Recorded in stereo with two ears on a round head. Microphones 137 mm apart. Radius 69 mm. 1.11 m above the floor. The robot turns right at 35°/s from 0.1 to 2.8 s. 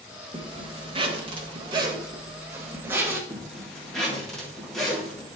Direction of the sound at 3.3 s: Centre (ahead or behind).